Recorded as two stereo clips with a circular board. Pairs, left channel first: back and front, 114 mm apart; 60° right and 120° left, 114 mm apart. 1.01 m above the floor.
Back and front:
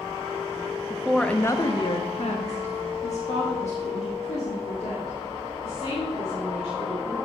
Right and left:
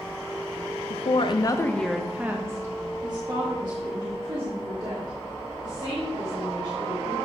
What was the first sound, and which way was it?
A woman speaking, 80° right.